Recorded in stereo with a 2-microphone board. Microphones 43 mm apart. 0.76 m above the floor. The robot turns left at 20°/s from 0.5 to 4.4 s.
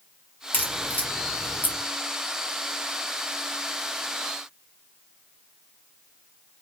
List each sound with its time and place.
0.5 s a crack: 45° left (ahead or behind), 1.4 m; by 1.8 s 55° left (ahead or behind), 1.4 m